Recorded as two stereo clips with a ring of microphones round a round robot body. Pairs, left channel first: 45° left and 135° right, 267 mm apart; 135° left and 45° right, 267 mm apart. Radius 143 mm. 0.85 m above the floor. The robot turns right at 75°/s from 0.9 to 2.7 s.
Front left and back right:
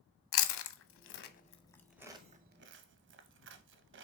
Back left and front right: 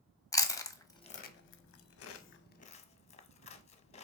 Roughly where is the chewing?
Ahead left.